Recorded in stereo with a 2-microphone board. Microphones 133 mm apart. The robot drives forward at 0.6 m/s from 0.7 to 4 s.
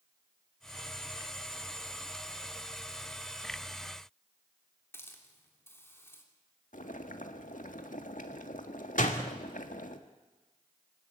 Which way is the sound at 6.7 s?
80° left.